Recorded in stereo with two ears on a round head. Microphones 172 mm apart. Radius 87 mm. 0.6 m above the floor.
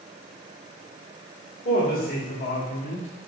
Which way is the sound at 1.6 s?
40° left (ahead or behind).